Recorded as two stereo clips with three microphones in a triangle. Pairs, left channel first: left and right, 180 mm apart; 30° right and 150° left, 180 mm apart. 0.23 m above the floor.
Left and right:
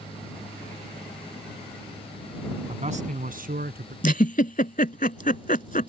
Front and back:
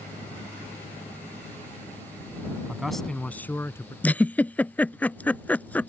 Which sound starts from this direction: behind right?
A man speaking, at 2.7 s.